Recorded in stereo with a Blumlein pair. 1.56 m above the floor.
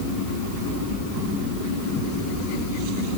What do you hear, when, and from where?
Only background noise.